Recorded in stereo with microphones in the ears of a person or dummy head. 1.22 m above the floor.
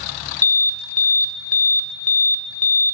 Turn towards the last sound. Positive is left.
turn(degrees=15)  # may be behind; listen again after turning